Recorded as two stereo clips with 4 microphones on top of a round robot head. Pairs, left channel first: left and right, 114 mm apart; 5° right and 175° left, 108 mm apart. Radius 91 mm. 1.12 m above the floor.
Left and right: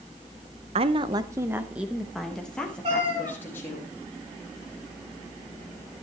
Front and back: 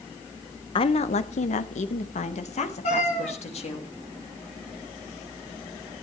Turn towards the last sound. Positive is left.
turn(degrees=-40)